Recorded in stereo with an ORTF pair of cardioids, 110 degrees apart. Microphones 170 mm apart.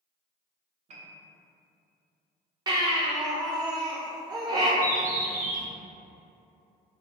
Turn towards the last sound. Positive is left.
turn(degrees=-60)